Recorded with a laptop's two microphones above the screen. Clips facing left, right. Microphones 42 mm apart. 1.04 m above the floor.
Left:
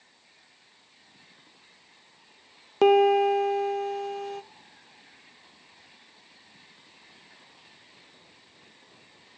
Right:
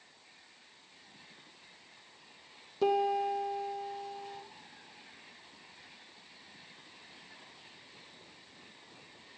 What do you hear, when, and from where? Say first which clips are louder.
2.8 s a piano: left 10 dB; 65° left (ahead or behind), 0.5 m